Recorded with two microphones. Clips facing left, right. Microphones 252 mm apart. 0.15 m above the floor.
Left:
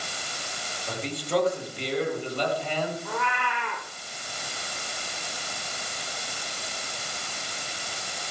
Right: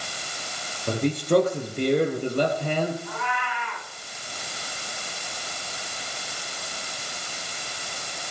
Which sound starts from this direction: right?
A man speaking, at 0.9 s.